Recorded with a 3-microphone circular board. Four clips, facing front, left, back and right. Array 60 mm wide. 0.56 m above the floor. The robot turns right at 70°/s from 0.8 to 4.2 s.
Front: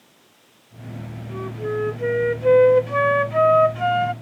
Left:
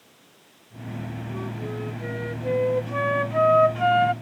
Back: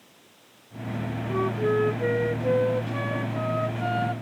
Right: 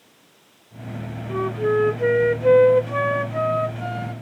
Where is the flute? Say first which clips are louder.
Right 14 dB, back 3 dB; 130° right; by 4.1 s 65° left.